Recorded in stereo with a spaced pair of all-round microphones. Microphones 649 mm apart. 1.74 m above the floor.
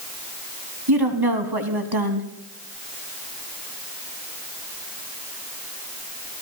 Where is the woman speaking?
35° right (ahead or behind), 2.5 m.